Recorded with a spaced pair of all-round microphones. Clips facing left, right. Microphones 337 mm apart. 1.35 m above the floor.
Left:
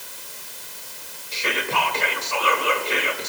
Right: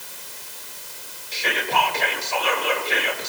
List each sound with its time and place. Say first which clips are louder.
1.3 s whispering: right 1 dB; 15° left (ahead or behind), 1.4 m